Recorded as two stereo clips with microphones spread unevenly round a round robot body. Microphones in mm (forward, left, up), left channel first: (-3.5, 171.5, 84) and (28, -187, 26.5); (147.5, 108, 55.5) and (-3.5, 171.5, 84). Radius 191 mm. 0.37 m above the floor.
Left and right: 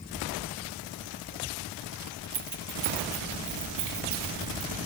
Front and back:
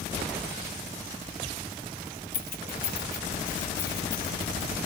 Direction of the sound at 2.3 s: 25° right.